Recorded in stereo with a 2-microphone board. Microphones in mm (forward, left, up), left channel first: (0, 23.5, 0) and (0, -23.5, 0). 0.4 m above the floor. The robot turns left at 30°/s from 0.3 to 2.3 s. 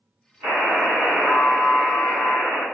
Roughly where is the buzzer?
Right.